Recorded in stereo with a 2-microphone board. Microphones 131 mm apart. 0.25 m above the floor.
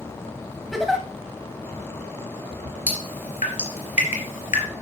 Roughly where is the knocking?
I don't hear knocking.